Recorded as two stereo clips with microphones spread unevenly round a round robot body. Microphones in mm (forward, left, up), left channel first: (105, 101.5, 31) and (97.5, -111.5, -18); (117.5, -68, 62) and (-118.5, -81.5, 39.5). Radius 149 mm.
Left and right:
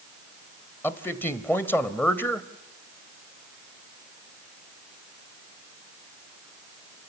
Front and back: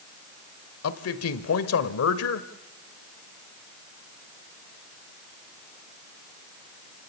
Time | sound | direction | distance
0.8 | a man speaking | straight ahead | 1.5 m